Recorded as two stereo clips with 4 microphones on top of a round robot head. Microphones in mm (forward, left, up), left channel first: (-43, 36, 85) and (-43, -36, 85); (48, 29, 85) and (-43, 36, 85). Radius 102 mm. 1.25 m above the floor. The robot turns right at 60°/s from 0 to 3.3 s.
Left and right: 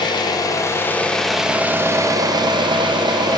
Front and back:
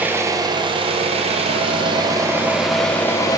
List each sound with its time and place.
0.0 s an engine running: 100° left, 0.8 m; by 3.4 s 60° right, 0.8 m